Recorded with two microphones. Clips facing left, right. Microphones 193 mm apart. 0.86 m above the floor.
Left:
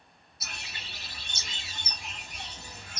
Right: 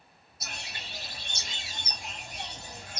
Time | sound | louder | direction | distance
0.4 | a bird | right 2 dB | 45° right (ahead or behind) | 2.5 m